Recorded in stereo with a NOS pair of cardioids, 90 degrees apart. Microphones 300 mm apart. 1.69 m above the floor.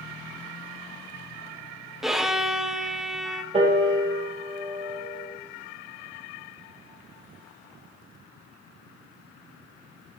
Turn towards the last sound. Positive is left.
turn(degrees=-20)